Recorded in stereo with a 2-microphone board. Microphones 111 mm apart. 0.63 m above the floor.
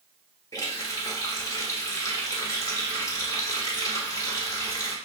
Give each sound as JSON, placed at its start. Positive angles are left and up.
{"t": 0.5, "sound": "a running tap", "side_deg": 30, "distance_m": 1.2}